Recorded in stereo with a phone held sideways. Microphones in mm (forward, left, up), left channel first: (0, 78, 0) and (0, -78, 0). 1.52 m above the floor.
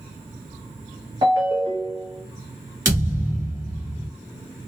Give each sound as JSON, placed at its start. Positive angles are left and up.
{"t": 1.2, "sound": "a ringtone", "side_deg": -30, "distance_m": 1.0}
{"t": 2.9, "sound": "a thud", "side_deg": -20, "distance_m": 1.5}